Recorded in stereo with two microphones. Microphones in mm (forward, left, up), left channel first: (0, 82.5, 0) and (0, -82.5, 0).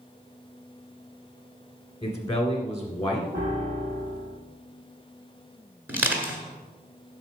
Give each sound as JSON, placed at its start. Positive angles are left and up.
{"t": 2.0, "sound": "a man speaking", "side_deg": 20, "distance_m": 1.4}
{"t": 3.3, "sound": "a piano", "side_deg": -70, "distance_m": 3.0}
{"t": 5.9, "sound": "crushing", "side_deg": -10, "distance_m": 1.3}